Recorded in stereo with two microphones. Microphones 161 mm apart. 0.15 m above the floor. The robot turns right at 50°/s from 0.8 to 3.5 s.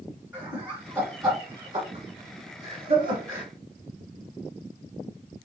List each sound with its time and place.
0.3 s laughter: 15° right (ahead or behind), 2 m